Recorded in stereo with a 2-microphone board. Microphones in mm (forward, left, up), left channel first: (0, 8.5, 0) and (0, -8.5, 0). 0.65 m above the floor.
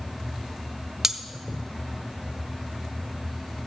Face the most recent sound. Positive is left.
turn(degrees=-20)  # may be behind; listen again after turning